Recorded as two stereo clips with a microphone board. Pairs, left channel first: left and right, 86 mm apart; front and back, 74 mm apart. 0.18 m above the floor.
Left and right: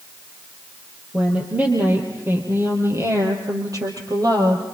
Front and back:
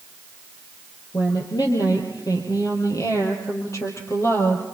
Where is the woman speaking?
15° right, 6 m; by 4.6 s 55° right, 6 m.